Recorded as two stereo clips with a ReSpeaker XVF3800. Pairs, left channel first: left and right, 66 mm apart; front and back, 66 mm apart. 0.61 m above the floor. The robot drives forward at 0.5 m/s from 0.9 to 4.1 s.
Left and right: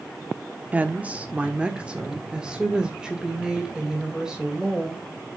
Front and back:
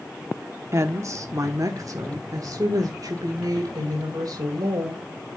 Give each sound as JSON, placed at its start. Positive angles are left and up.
{"t": 0.7, "sound": "a woman speaking", "azimuth_deg": -150, "distance_m": 1.0}